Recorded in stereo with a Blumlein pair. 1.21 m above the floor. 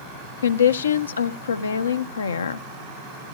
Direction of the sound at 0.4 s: 70° left.